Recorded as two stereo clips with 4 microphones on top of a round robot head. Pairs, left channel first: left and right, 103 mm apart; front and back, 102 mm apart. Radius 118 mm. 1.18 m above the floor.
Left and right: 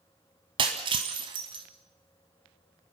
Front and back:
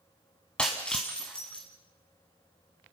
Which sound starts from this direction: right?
Breaking glass, at 0.6 s.